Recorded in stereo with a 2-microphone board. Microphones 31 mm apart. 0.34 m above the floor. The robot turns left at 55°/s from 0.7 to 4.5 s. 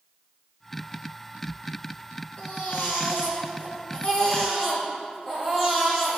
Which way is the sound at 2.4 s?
125° left.